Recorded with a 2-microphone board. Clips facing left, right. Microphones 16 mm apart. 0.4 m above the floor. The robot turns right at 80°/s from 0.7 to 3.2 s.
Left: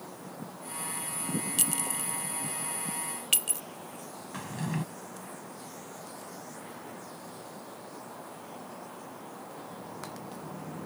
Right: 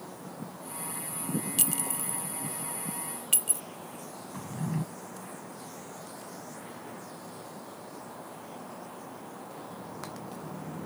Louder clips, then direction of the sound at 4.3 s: Even; 65° left (ahead or behind).